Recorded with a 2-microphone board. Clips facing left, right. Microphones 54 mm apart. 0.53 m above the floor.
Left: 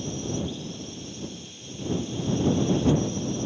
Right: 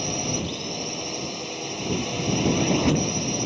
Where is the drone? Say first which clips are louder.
Right 2 dB; 70° right (ahead or behind).